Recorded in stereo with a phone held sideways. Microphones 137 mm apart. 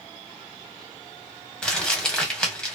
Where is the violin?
I don't hear a violin.